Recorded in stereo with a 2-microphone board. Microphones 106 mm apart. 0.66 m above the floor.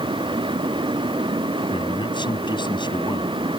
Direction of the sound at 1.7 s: 45° left (ahead or behind).